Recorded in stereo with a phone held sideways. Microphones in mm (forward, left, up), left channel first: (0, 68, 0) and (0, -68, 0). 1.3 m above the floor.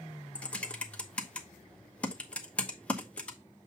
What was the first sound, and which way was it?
Typing on a keyboard, 10° left (ahead or behind).